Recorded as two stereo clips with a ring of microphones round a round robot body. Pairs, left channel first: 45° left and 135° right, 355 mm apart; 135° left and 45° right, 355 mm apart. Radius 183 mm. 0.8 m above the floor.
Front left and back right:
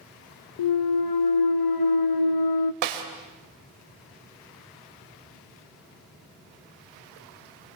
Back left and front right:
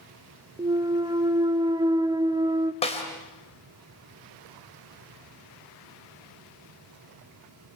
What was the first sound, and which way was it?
A clunk, 35° left.